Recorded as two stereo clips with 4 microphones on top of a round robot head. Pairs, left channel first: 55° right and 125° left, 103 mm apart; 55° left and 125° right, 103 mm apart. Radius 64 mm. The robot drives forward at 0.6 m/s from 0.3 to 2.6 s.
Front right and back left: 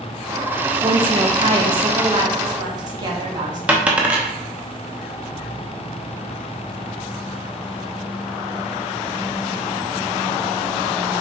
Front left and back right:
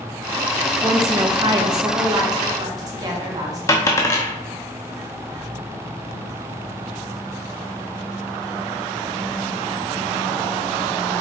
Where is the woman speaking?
170° left, 0.6 m; by 3.6 s 175° left, 1.7 m.